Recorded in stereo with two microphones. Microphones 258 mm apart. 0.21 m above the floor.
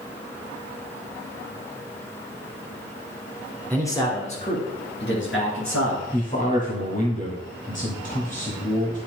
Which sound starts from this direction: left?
A man speaking, at 6.1 s.